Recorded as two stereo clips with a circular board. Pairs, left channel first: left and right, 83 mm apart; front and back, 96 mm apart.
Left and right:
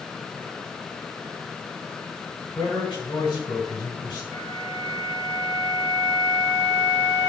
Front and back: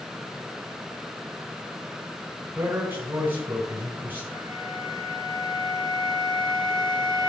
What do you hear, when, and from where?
2.5 s a man speaking: 110° left, 4.5 m
4.3 s a flute: 35° left, 5.5 m